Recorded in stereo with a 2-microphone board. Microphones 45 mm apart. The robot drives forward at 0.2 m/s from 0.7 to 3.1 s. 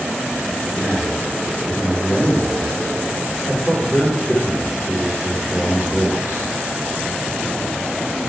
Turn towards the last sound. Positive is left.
turn(degrees=5)  # may be behind; listen again after turning